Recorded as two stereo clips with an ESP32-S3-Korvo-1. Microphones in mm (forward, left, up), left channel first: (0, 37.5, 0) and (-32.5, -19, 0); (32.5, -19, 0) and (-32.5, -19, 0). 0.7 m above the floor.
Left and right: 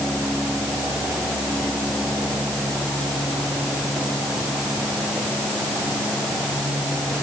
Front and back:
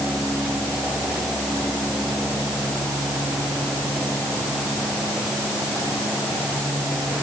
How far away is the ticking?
I don't hear ticking.